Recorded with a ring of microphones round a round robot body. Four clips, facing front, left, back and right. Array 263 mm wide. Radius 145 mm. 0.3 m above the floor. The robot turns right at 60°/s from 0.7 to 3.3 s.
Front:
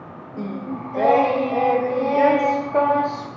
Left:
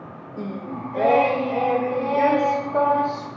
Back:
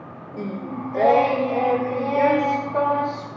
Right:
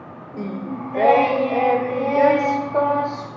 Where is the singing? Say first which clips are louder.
Right 3 dB, front 1 dB; 135° right, 0.5 m; by 3.3 s 20° left, 0.5 m.